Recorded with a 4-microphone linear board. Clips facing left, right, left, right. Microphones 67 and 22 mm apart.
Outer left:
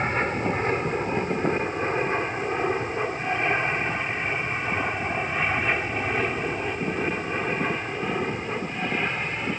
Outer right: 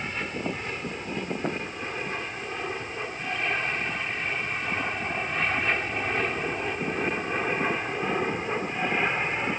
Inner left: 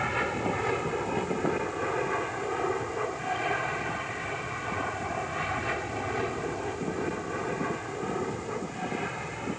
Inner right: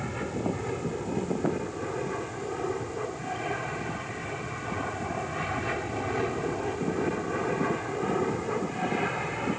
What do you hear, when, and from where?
0.0 s an aircraft: 40° left (ahead or behind); by 9.6 s 15° right (ahead or behind)